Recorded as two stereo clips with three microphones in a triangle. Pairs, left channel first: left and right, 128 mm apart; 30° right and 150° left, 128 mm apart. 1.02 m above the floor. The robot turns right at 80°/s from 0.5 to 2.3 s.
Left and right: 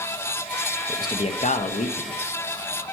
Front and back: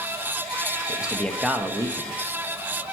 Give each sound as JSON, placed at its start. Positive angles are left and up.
{"t": 0.9, "sound": "a man speaking", "azimuth_deg": 20, "distance_m": 0.7}